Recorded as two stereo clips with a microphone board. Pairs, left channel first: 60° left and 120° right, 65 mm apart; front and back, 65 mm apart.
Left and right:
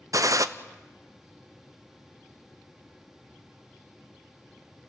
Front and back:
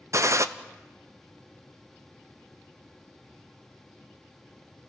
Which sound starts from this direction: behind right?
A gunshot, at 0.1 s.